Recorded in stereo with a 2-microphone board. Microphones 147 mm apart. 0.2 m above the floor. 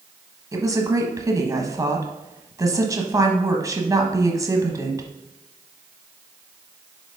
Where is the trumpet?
No trumpet in this recording.